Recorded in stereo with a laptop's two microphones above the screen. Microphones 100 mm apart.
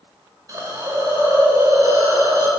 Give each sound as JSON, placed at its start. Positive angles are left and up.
{"t": 0.5, "sound": "a hiss", "side_deg": -35, "distance_m": 1.2}